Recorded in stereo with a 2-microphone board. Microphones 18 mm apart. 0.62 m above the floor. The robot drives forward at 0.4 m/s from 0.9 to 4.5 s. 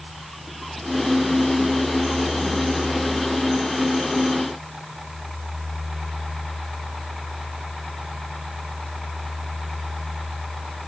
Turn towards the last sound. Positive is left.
No sound to turn to.